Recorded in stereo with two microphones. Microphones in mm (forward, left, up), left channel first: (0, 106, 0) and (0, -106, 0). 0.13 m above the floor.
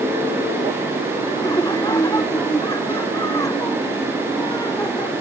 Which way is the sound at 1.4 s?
15° left (ahead or behind).